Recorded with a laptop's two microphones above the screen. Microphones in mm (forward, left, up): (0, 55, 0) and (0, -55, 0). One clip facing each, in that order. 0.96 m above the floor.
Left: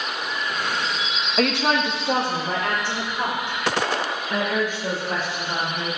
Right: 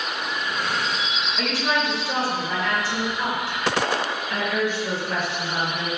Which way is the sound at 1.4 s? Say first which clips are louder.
Left 4 dB; 70° left (ahead or behind).